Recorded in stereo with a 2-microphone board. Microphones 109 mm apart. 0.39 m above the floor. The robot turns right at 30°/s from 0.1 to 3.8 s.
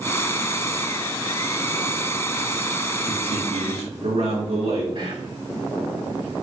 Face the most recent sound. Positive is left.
turn(degrees=-50)  # may be behind; listen again after turning